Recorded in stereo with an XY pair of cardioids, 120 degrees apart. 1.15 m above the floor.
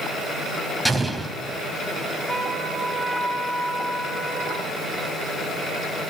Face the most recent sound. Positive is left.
turn(degrees=10)